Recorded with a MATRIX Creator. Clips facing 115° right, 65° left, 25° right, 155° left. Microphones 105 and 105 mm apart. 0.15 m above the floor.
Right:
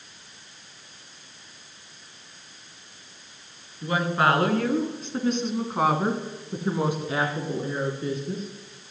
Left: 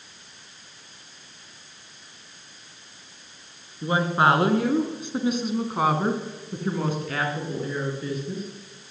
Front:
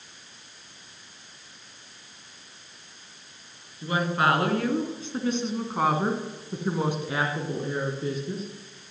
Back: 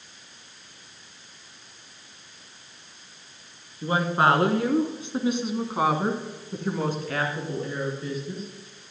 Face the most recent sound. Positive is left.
turn(degrees=-65)